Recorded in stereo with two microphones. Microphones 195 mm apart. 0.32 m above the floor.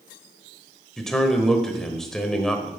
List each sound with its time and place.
1.0 s a man speaking: 5° left (ahead or behind), 1.1 m